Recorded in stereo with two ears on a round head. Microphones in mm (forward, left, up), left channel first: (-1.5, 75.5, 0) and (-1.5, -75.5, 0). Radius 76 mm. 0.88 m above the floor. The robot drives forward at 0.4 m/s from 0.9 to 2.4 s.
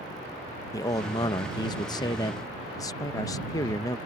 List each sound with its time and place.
0.7 s a man speaking: 20° left (ahead or behind)